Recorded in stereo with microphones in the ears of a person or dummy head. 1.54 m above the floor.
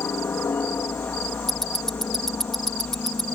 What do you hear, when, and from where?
0.0 s a helicopter: 10° left (ahead or behind); by 3.3 s 5° left (ahead or behind)
1.5 s ticking: 5° left (ahead or behind)